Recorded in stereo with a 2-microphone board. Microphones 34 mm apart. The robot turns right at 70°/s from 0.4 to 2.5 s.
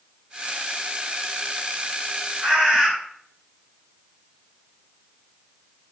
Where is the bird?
35° right (ahead or behind), 1.8 m; by 2.9 s 30° right (ahead or behind), 1.8 m.